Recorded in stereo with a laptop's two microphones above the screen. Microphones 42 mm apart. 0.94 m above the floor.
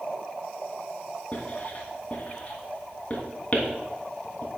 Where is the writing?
35° left (ahead or behind), 2.5 m.